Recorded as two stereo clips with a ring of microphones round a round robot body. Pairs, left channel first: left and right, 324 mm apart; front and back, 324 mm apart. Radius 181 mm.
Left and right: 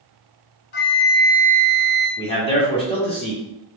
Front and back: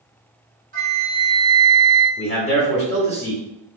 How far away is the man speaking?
About 1.5 m.